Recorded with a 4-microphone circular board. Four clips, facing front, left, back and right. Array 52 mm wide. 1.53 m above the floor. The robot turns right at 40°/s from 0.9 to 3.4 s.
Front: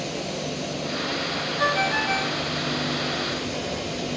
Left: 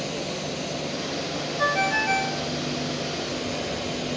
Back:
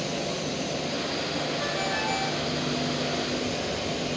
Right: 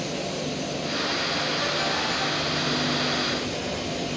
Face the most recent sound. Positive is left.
turn(degrees=115)